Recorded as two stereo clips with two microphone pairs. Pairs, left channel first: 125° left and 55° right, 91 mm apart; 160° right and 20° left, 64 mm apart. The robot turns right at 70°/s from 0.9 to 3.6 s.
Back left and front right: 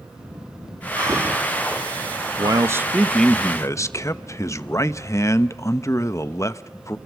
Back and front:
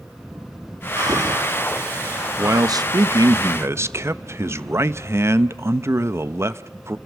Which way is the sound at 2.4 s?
20° right.